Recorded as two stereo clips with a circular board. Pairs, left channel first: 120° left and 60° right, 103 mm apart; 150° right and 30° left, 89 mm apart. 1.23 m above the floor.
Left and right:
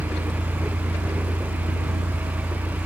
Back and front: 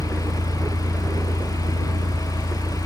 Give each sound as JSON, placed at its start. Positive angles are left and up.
{"t": 0.0, "sound": "a vehicle", "azimuth_deg": -5}